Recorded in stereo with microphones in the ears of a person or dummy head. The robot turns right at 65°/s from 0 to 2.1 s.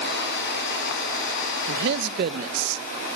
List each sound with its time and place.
1.7 s a man speaking: 80° right, 1.0 m; by 2.8 s 50° right (ahead or behind), 1.0 m